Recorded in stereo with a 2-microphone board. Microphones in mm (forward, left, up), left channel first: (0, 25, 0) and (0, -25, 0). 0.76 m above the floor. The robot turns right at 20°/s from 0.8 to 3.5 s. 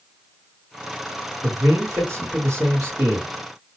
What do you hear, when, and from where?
1.4 s a man speaking: 100° right, 2 m; by 3.3 s 65° right, 2 m